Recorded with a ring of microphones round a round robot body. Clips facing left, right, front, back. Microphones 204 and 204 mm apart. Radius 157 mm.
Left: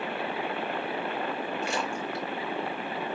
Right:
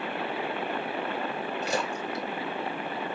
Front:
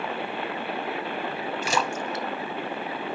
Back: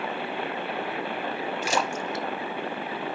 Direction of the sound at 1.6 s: 25° right.